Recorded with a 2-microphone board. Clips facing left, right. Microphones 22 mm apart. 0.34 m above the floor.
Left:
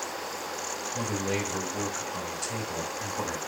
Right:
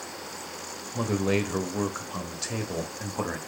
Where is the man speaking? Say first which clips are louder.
Right 5 dB; 35° right (ahead or behind), 1.2 m.